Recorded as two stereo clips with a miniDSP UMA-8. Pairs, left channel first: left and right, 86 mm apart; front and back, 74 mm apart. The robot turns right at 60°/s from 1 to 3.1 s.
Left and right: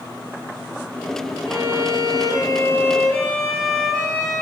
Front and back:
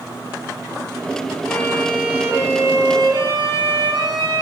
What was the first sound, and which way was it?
A violin, 75° left.